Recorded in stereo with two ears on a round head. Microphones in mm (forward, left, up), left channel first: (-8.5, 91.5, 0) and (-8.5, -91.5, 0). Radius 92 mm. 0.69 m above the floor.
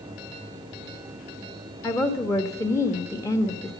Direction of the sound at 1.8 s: 15° left (ahead or behind).